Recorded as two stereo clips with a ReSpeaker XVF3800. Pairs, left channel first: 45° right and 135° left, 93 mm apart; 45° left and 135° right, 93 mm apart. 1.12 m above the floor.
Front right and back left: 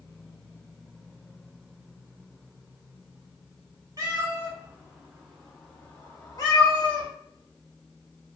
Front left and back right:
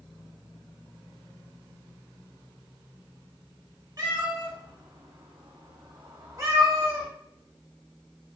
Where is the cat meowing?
175° right, 1.3 m; by 7.1 s 65° right, 1.1 m.